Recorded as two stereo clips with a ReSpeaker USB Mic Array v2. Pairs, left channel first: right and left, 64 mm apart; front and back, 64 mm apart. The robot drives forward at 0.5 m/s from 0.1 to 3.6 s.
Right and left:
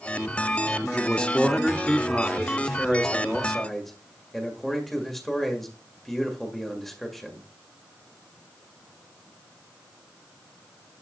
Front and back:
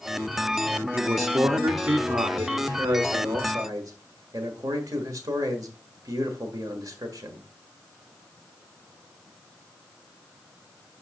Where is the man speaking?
155° right, 0.7 m; by 7.5 s 175° right, 1.8 m.